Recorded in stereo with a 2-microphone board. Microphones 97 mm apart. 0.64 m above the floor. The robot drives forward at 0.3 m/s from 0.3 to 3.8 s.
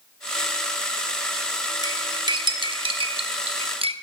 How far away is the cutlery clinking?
About 0.7 m.